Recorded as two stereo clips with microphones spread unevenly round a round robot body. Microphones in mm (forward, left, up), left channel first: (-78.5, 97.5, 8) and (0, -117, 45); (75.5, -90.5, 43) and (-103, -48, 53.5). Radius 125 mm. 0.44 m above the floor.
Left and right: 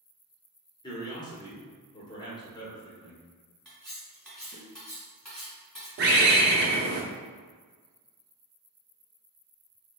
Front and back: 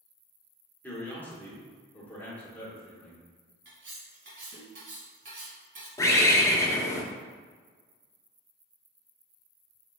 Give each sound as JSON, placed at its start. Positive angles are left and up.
{"t": 0.8, "sound": "a man speaking", "azimuth_deg": 60, "distance_m": 0.9}
{"t": 3.6, "sound": "cutlery clinking", "azimuth_deg": -165, "distance_m": 1.8}
{"t": 6.0, "sound": "a bird", "azimuth_deg": -65, "distance_m": 0.7}